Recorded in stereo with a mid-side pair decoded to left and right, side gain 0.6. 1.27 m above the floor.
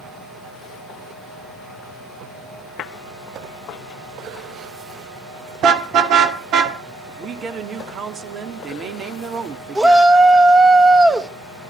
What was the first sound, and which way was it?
A car horn, 55° right.